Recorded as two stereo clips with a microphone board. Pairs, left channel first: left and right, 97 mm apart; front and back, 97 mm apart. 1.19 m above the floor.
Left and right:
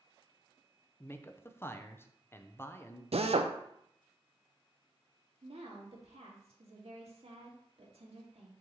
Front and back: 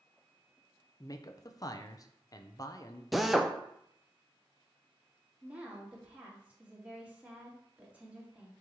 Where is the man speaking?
35° left, 0.6 m.